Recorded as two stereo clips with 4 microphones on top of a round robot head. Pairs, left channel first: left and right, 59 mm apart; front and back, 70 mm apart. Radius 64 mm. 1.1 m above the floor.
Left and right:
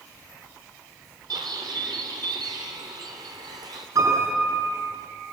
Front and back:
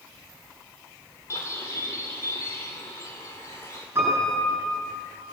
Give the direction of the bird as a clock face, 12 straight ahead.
2 o'clock.